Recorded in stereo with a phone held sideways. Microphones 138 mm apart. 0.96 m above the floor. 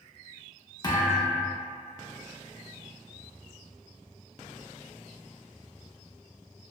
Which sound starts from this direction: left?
A thud, at 0.8 s.